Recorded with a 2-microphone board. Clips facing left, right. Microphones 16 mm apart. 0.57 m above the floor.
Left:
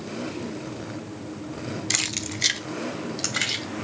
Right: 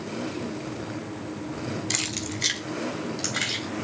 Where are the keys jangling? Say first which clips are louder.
Left 4 dB; 15° left (ahead or behind), 1.1 m.